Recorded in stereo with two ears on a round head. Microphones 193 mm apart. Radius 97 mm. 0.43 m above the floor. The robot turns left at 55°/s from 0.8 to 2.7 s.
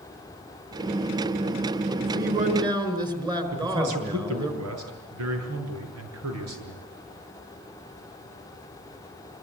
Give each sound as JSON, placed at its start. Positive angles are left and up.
{"t": 2.0, "sound": "a man speaking", "azimuth_deg": -120, "distance_m": 5.0}
{"t": 3.5, "sound": "a man speaking", "side_deg": -80, "distance_m": 7.5}